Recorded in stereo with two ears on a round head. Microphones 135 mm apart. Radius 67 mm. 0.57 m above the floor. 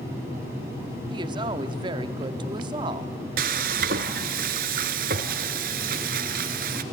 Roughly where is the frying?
Right.